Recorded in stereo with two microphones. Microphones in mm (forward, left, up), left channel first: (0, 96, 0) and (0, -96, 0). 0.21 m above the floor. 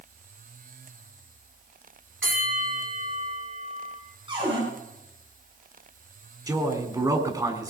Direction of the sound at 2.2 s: 85° right.